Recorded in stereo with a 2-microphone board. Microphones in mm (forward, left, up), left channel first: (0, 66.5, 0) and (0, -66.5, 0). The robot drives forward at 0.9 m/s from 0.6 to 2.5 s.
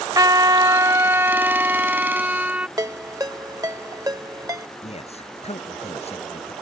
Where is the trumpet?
30° right (ahead or behind); by 2.7 s 10° right (ahead or behind).